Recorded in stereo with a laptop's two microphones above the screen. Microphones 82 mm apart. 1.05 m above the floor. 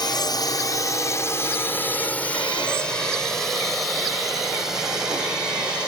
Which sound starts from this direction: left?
A drone, at 0.0 s.